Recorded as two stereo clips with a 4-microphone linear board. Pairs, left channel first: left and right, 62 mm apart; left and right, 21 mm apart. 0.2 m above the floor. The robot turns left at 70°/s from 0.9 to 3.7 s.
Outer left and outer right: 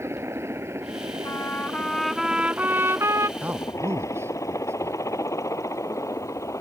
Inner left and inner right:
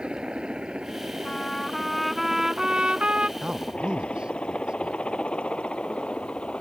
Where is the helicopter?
45° right (ahead or behind); by 6.6 s 55° left (ahead or behind).